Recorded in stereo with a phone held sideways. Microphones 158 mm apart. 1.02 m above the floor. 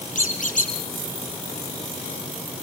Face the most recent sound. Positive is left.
turn(degrees=50)  # may be behind; listen again after turning